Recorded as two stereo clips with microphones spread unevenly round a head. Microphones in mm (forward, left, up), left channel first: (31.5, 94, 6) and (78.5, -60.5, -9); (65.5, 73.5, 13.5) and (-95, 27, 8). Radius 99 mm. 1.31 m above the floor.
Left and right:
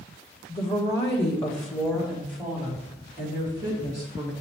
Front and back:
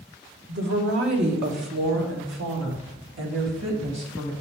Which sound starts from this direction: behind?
A woman speaking, at 0.5 s.